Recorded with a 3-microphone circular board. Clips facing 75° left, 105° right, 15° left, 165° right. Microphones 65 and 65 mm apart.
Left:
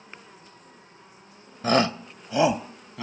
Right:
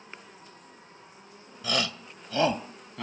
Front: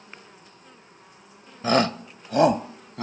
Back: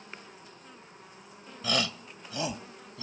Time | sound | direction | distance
1.6 | a shout | 50° left | ?